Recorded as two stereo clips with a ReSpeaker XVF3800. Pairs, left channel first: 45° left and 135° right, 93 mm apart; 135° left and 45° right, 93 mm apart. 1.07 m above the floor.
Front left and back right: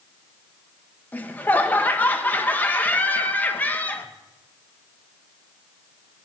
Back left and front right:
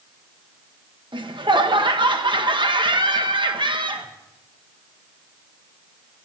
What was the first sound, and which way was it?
Laughter, 25° right.